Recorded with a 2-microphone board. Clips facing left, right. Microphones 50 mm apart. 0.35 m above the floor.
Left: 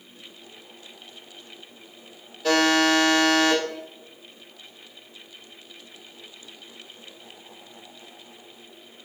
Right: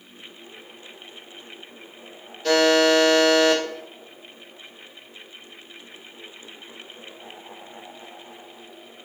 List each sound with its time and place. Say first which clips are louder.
2.4 s a buzzer: right 2 dB; 5° left (ahead or behind), 1.5 m